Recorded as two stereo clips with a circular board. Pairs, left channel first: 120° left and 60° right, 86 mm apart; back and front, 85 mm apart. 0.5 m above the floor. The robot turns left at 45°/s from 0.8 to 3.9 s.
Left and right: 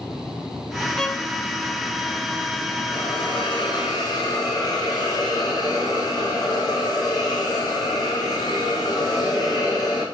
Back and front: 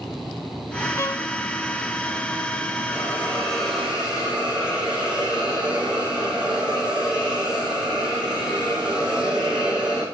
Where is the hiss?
125° left, 4.5 m; by 10.0 s 80° left, 4.5 m.